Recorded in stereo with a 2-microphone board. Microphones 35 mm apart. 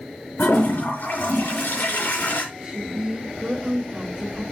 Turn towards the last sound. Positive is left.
turn(degrees=-30)  # may be behind; listen again after turning